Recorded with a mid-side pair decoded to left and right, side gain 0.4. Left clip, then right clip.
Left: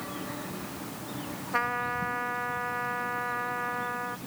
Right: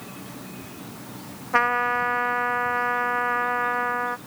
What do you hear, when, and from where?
1.5 s a trumpet: 60° right